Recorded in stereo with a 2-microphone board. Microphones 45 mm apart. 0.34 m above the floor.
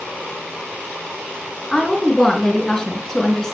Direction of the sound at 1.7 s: 10° left (ahead or behind).